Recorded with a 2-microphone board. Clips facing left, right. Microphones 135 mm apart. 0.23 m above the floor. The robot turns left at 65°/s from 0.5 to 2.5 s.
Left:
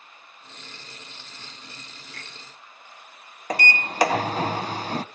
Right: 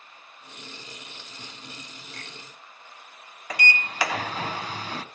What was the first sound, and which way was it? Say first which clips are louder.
A finger snap: right 1 dB; 35° right (ahead or behind).